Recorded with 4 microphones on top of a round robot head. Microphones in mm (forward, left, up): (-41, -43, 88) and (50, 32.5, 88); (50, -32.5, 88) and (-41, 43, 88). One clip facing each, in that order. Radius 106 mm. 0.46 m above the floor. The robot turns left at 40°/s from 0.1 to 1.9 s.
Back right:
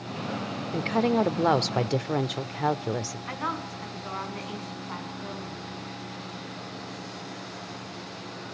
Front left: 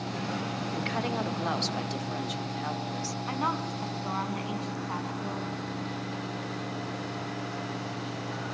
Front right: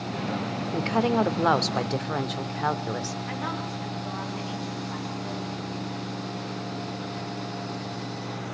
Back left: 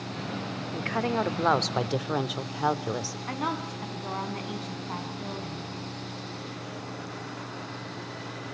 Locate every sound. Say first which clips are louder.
0.7 s a woman speaking: back right 9 dB, front right 5 dB; 95° right, 1.3 m; by 3.2 s 140° right, 1.3 m
3.3 s a woman speaking: front left 5 dB, even; 105° left, 5 m